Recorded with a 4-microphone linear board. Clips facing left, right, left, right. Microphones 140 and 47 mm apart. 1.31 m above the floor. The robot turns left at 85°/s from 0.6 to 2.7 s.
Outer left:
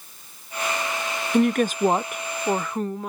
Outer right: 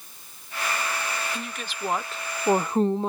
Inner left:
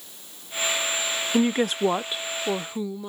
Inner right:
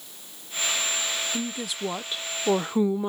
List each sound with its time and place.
1.3 s a woman speaking: 85° left; by 3.1 s 30° right